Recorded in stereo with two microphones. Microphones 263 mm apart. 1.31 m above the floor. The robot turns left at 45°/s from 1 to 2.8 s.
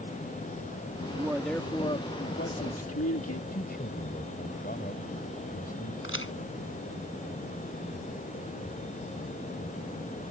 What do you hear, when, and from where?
1.1 s a man speaking: 165° right; by 3.4 s 120° left
3.5 s a man speaking: 35° left (ahead or behind)
6.0 s a crack: 50° left (ahead or behind)